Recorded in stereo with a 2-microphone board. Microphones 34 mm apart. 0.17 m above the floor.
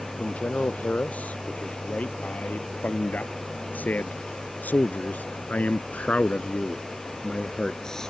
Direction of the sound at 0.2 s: 45° left (ahead or behind).